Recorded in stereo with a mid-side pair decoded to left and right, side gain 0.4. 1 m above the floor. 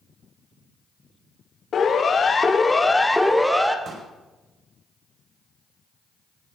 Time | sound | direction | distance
1.7 | a siren | 60° left | 2.5 m
3.9 | a pop | 60° right | 6 m